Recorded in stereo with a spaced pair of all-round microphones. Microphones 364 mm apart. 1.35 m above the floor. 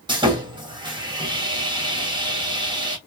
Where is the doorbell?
No doorbell in this recording.